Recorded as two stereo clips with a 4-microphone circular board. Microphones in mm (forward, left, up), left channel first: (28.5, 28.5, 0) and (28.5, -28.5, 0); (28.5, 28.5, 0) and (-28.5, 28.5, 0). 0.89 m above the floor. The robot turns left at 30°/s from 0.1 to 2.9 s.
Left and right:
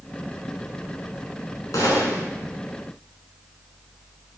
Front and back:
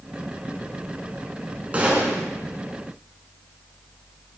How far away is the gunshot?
About 5.5 m.